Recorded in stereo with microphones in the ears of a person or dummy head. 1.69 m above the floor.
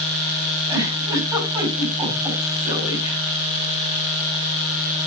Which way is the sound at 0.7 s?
15° right (ahead or behind).